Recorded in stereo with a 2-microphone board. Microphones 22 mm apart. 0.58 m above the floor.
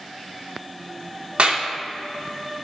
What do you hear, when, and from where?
1.4 s a clap: 60° right (ahead or behind), 0.7 m